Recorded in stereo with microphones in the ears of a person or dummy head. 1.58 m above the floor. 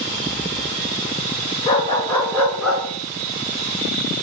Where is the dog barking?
25° left (ahead or behind), 4.5 m; by 2.8 s centre (ahead or behind), 5 m.